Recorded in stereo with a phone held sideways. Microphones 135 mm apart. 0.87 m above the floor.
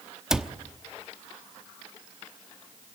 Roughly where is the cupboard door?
Centre.